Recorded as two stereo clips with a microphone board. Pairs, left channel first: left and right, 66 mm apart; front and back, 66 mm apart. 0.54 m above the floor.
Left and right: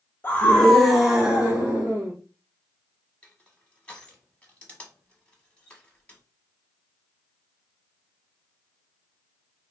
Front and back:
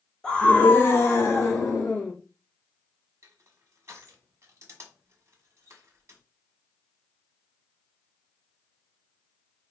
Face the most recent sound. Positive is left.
turn(degrees=160)